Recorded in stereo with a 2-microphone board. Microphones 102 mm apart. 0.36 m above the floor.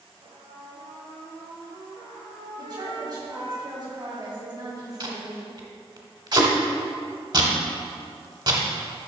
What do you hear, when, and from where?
0.2 s a trumpet: 55° right (ahead or behind), 2.0 m
2.6 s a woman speaking: 45° right (ahead or behind), 2 m
5.0 s tape being pulled: 50° right (ahead or behind), 1.0 m